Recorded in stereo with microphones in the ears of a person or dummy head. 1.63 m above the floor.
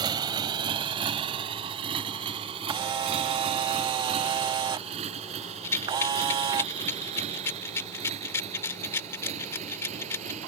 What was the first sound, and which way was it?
A motorcycle, 25° right (ahead or behind).